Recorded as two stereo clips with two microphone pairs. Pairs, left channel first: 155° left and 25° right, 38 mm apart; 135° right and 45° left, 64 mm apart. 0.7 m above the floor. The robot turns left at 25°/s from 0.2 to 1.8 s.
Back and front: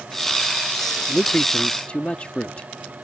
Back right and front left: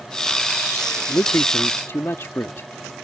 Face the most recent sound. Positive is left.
turn(degrees=-165)